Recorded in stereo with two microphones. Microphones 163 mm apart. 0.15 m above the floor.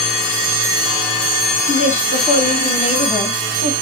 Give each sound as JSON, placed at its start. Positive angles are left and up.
{"t": 1.7, "sound": "a woman speaking", "side_deg": 45, "distance_m": 2.5}